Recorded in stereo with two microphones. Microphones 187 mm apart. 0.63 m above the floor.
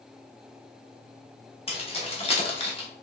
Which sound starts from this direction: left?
Keys jangling, at 1.7 s.